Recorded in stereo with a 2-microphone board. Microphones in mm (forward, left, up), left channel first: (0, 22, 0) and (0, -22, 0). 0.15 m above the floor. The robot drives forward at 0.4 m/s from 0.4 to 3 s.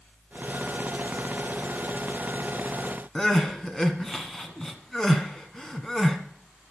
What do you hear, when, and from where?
3.1 s crying: 10° left (ahead or behind), 1.7 m